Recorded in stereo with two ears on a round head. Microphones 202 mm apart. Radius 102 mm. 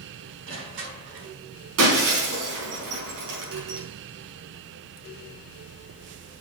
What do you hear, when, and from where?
0.5 s crushing: 60° right (ahead or behind), 4.5 m
1.8 s breaking glass: 75° right (ahead or behind), 4.5 m